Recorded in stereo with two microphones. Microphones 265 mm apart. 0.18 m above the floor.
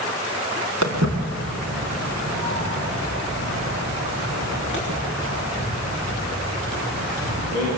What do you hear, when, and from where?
0.8 s footsteps: 80° right, 4.5 m